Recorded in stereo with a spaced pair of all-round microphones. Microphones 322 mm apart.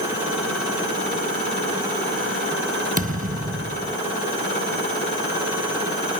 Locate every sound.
3.0 s a thud: 25° right (ahead or behind)